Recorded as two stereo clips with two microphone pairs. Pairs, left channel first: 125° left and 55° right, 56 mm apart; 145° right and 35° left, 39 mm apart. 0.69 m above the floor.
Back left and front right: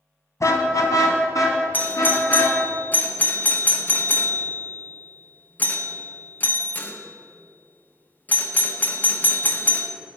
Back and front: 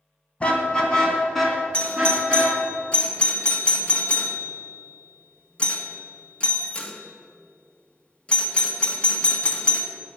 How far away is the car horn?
About 2 m.